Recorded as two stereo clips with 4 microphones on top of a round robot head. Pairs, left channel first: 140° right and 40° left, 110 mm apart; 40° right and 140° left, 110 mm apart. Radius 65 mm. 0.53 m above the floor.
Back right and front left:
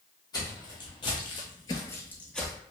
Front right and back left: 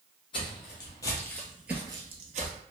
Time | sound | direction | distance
0.3 | footsteps | 85° right | 1.2 m